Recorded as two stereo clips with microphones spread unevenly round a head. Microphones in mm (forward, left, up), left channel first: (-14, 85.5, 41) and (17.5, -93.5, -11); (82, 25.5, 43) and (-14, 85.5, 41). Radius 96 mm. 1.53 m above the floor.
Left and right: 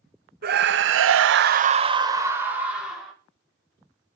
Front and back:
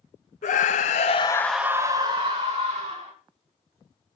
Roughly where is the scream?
Ahead right.